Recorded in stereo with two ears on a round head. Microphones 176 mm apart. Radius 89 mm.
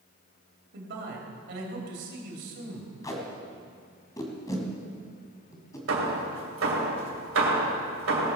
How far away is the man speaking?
About 3 m.